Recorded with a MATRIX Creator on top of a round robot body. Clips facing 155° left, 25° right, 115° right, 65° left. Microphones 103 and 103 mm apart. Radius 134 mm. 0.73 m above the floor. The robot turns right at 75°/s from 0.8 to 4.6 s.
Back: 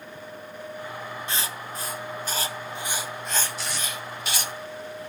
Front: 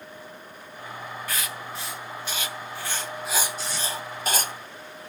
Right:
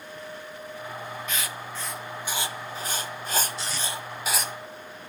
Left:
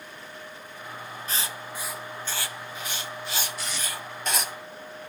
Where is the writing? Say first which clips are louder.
Back 1 dB, right 1 dB; 105° left, 1.1 m; by 4.5 s 10° right, 1.1 m.